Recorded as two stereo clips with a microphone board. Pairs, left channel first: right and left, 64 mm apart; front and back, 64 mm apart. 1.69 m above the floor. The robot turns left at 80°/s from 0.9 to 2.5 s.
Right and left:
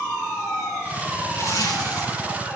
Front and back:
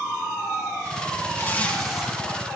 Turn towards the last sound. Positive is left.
turn(degrees=-140)